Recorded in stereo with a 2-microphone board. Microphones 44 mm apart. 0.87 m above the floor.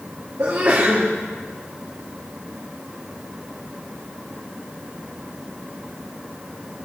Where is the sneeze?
65° right (ahead or behind), 2 m.